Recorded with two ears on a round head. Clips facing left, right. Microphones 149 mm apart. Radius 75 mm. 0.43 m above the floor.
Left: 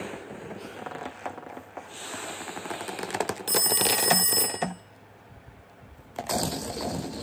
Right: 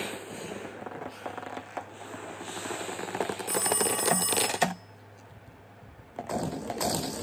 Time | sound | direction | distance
3.5 | a phone ringing | 20° left (ahead or behind) | 0.6 m